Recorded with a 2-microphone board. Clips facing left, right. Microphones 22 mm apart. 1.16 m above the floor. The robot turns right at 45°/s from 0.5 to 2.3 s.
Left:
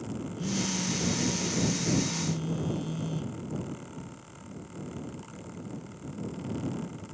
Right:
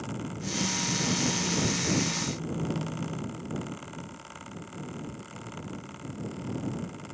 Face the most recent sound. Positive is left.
turn(degrees=130)